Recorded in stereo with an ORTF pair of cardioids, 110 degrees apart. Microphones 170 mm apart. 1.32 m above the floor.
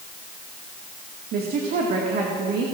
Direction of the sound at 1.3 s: 65° right.